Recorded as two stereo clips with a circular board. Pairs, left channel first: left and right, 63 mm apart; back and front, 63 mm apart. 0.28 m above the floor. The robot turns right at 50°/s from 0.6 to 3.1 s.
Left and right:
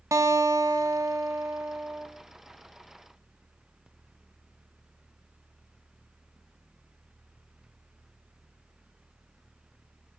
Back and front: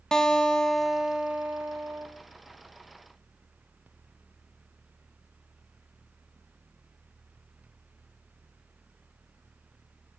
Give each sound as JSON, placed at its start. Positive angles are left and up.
{"t": 0.1, "sound": "a guitar", "azimuth_deg": -100, "distance_m": 1.3}